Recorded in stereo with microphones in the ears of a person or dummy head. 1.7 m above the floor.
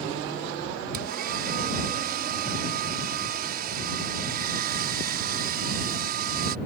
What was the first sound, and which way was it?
A hair dryer, 55° right (ahead or behind).